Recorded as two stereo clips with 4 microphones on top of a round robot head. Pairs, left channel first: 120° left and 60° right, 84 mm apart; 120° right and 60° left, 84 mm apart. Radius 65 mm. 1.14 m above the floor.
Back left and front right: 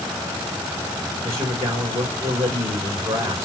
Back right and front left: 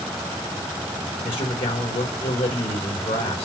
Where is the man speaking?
115° right, 2.5 m.